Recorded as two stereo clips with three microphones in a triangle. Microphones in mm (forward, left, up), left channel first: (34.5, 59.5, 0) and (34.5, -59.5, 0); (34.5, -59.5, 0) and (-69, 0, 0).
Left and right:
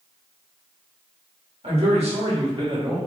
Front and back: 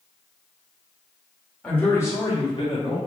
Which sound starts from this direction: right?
A man speaking, at 1.6 s.